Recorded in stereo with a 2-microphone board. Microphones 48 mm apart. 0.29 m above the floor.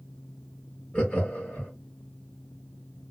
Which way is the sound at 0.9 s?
25° left (ahead or behind).